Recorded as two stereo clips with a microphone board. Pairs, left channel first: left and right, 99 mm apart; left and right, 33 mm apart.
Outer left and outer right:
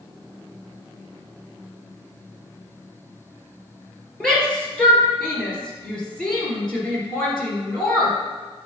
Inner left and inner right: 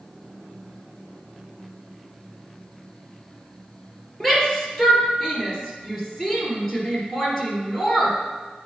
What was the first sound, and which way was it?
A shout, 5° left (ahead or behind).